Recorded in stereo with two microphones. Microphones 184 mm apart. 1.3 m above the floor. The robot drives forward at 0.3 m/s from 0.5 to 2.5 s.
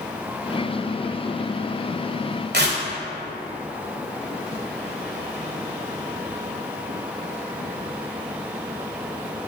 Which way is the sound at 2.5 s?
65° right (ahead or behind).